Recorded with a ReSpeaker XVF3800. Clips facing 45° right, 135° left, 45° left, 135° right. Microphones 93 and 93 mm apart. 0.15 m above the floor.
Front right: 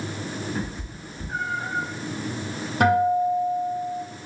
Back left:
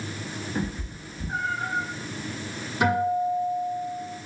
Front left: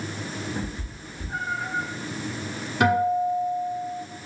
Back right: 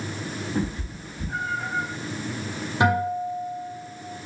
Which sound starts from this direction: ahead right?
A guitar, at 2.8 s.